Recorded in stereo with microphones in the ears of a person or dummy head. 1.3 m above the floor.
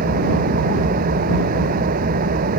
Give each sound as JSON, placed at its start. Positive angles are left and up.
{"t": 0.0, "sound": "an engine running", "side_deg": -45}